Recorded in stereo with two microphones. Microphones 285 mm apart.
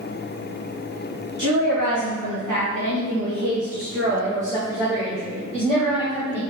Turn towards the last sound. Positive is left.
turn(degrees=20)  # may be behind; listen again after turning